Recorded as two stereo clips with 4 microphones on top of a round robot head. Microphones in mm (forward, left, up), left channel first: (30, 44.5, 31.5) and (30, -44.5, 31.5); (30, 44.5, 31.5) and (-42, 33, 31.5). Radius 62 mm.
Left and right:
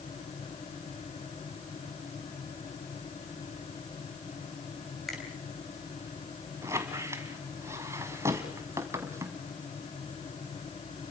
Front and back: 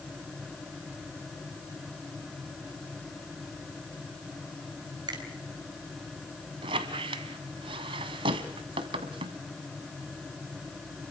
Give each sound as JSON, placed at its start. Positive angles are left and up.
{"t": 5.1, "sound": "a finger snap", "azimuth_deg": 180, "distance_m": 3.5}
{"t": 6.6, "sound": "a squeak", "azimuth_deg": -155, "distance_m": 1.3}